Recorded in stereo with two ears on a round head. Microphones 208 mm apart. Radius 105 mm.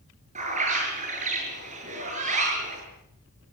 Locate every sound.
0.3 s a bird: 30° right (ahead or behind), 7 m